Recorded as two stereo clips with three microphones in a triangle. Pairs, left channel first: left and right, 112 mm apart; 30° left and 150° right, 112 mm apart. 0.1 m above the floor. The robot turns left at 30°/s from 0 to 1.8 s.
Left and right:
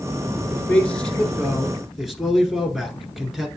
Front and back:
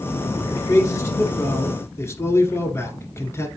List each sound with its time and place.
0.5 s a man speaking: 40° left, 1.2 m; by 3.5 s straight ahead, 1.2 m